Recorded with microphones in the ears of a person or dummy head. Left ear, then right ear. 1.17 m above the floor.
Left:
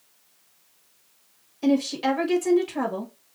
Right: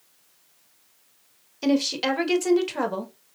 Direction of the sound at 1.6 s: 30° right (ahead or behind).